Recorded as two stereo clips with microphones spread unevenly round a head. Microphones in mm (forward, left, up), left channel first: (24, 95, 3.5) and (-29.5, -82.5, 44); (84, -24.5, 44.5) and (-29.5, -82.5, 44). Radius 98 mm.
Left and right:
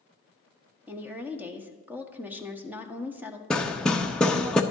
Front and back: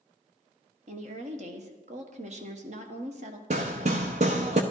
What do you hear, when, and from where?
0.9 s a woman speaking: 170° left, 1.4 m
3.5 s hammering: 170° left, 0.9 m